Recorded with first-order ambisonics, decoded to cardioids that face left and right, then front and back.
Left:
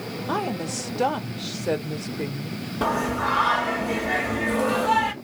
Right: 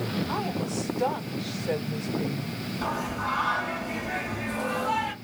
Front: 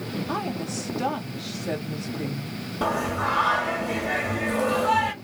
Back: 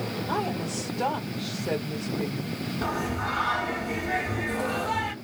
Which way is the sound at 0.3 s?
85° left.